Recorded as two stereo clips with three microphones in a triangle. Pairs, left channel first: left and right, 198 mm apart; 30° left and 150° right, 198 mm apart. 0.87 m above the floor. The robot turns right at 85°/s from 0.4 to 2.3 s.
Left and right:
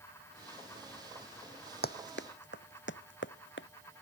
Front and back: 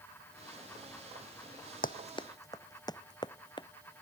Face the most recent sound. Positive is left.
turn(degrees=95)